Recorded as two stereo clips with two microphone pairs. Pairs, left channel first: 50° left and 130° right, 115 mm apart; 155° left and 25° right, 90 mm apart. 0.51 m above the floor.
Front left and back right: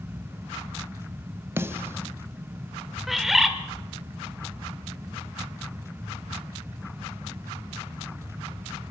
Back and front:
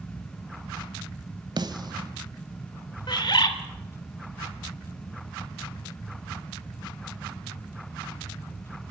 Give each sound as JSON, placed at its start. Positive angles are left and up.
{"t": 1.6, "sound": "a snare drum", "azimuth_deg": -65, "distance_m": 1.3}
{"t": 3.1, "sound": "a bird", "azimuth_deg": 145, "distance_m": 2.0}